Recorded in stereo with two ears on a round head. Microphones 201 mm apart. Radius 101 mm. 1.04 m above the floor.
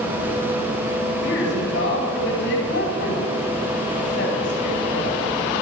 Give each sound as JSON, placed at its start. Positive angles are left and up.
{"t": 1.2, "sound": "a woman speaking", "side_deg": 50, "distance_m": 9.5}